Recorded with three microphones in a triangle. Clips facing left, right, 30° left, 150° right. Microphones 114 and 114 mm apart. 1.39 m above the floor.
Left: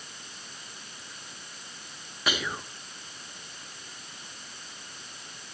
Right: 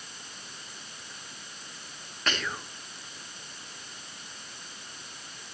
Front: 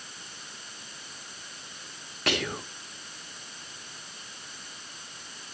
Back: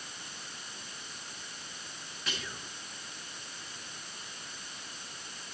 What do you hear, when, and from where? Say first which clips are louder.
2.3 s whispering: left 1 dB, front 12 dB; 10° left, 0.5 m